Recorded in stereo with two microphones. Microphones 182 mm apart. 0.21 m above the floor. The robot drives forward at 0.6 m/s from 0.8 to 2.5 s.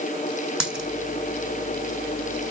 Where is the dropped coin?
5° right (ahead or behind), 2.5 m.